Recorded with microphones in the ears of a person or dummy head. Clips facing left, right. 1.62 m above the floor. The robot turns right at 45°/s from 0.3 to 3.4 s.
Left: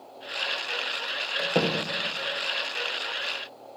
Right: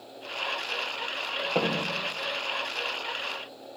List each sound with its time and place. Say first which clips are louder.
1.4 s a door slam: left 2 dB; 15° left (ahead or behind), 0.8 m; by 2.0 s 5° right (ahead or behind), 0.8 m